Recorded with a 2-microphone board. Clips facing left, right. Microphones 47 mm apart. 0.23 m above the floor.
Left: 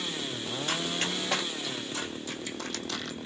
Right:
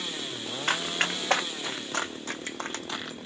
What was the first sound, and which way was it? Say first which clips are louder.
Running footsteps: right 5 dB; 75° right (ahead or behind).